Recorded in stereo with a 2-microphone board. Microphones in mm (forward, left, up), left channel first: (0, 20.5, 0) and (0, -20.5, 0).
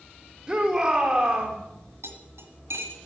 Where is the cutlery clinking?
75° right (ahead or behind), 1.5 m.